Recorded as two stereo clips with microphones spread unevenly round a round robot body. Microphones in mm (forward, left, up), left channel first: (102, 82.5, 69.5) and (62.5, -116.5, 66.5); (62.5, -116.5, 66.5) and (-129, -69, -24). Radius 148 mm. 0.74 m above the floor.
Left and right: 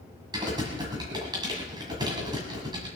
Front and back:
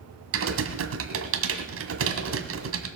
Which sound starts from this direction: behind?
Typing on a keyboard, at 0.3 s.